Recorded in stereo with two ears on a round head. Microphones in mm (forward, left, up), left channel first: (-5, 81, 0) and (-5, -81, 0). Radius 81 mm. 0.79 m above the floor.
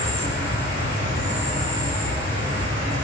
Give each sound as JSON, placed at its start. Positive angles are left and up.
{"t": 0.0, "sound": "an insect", "side_deg": 70, "distance_m": 1.5}